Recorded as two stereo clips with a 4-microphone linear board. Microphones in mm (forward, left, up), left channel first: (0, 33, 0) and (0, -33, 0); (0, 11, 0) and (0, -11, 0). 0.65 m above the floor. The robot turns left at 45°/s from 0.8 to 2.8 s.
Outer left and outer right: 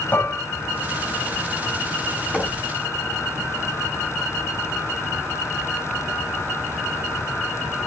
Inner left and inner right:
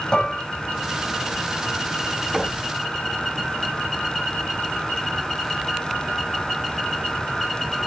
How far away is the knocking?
About 5.5 m.